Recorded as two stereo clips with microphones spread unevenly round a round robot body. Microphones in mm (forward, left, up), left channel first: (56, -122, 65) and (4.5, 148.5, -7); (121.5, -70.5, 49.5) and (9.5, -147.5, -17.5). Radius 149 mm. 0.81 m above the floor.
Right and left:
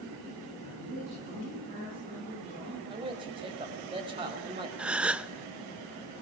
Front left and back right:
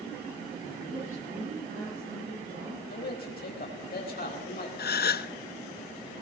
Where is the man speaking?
30° left, 4.5 m.